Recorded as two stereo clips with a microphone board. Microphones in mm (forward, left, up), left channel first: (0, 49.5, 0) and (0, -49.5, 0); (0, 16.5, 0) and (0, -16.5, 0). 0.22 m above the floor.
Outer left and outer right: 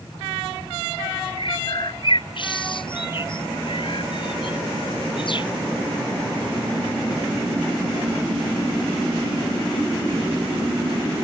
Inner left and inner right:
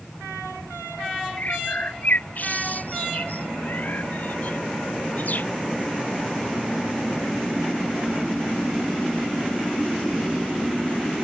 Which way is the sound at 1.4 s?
55° left (ahead or behind).